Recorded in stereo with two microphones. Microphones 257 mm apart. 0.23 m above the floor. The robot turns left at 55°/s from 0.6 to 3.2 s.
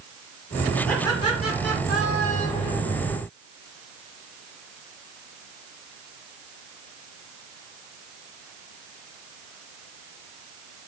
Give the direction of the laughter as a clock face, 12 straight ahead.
6 o'clock.